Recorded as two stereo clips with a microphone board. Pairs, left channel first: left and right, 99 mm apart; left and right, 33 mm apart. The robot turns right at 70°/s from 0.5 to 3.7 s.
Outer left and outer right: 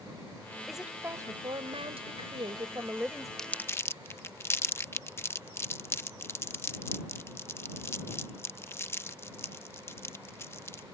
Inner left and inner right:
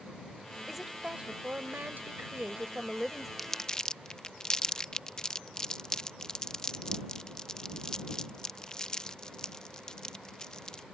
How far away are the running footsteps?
I don't hear running footsteps.